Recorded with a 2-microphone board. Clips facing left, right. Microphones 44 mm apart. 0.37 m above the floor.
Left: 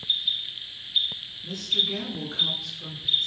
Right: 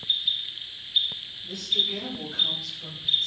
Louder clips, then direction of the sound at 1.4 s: Left 1 dB; 55° left (ahead or behind).